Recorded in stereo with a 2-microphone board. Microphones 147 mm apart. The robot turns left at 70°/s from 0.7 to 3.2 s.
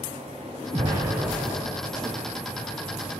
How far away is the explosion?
About 0.8 m.